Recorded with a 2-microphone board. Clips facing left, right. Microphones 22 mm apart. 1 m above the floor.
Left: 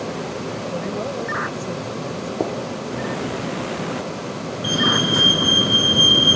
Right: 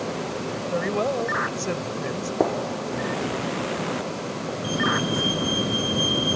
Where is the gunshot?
35° right (ahead or behind).